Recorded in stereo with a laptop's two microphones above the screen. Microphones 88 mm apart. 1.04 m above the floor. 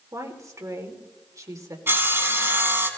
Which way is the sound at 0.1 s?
35° right (ahead or behind).